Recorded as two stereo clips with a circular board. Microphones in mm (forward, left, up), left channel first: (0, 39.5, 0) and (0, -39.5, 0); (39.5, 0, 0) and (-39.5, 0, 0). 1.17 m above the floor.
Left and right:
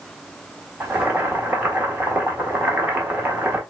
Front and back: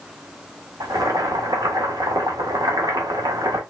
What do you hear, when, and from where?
0.8 s boiling: 155° right, 1.2 m